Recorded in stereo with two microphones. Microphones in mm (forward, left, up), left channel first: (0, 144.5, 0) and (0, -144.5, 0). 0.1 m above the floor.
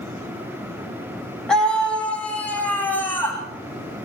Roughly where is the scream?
Centre.